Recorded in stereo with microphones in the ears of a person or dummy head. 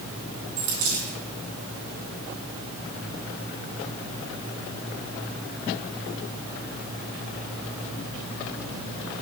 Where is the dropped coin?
75° right (ahead or behind), 3.5 m.